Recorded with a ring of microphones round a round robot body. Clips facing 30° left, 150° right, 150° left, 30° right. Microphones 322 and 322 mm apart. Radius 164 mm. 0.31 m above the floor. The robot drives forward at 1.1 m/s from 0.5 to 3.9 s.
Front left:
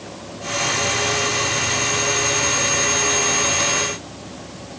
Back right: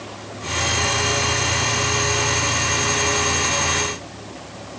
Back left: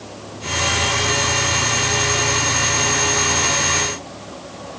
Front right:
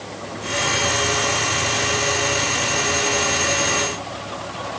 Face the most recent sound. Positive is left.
No sound to turn to.